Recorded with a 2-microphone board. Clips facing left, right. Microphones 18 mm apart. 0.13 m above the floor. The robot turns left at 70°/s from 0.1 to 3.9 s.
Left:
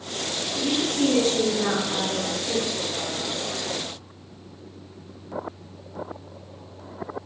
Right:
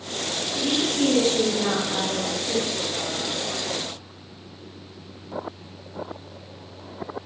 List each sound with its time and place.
0.6 s a woman speaking: 10° right (ahead or behind), 1.6 m; by 2.7 s 20° left (ahead or behind), 1.6 m